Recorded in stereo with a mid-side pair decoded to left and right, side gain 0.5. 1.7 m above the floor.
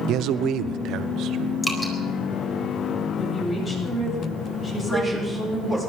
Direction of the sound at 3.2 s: 35° left.